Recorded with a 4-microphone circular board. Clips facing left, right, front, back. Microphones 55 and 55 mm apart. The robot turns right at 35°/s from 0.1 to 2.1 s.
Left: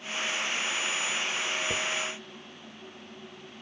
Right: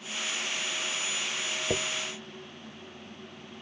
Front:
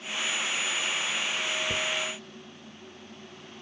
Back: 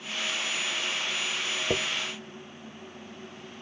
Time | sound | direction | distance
1.7 | a dropped coin | 150° right | ?